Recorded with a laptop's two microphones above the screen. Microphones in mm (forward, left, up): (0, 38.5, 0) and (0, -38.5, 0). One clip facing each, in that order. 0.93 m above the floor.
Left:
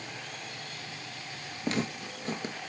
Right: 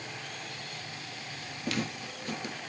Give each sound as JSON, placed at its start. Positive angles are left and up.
{"t": 1.6, "sound": "footsteps", "side_deg": 30, "distance_m": 1.1}